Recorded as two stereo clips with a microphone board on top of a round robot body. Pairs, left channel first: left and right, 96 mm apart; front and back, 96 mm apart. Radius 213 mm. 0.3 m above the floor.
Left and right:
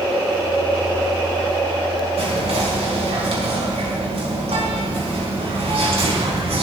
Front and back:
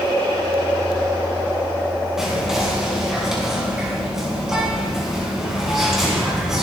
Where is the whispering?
95° right, 5 m.